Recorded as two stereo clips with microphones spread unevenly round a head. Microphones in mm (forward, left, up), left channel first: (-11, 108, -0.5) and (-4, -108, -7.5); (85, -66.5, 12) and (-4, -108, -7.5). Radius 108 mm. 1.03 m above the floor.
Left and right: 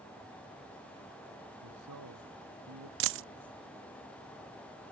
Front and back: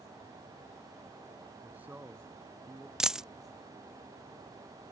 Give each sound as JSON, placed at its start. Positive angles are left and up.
{"t": 1.6, "sound": "a man speaking", "azimuth_deg": -80}
{"t": 3.0, "sound": "a dropped coin", "azimuth_deg": -65}